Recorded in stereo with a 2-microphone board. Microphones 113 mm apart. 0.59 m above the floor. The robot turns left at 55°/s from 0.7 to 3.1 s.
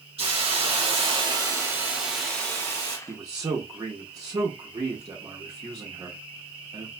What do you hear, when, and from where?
0.2 s a hiss: 100° right, 1.6 m; by 3.0 s 135° left, 1.6 m
3.1 s a man speaking: 30° right (ahead or behind), 0.9 m